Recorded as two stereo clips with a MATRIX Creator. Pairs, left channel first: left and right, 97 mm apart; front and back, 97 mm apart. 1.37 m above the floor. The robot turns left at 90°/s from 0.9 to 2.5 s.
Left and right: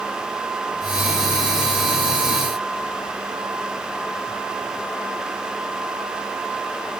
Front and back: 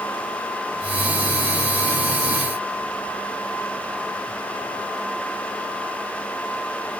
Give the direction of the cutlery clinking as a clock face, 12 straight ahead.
I don't hear cutlery clinking.